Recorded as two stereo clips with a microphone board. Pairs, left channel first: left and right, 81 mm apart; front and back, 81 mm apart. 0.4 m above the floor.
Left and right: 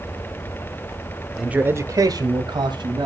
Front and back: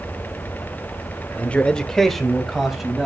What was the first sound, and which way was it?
A man speaking, 15° right.